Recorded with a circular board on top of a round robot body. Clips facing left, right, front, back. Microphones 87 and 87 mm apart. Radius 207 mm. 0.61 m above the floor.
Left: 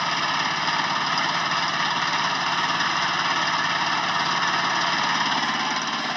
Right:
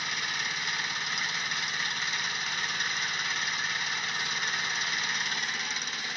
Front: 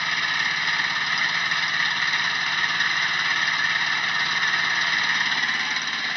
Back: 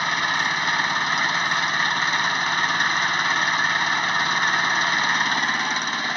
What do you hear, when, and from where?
0.0 s an engine running: 120° left